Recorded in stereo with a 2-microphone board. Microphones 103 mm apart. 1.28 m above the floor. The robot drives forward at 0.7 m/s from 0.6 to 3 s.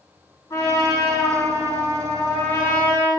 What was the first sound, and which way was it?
A trumpet, 45° left (ahead or behind).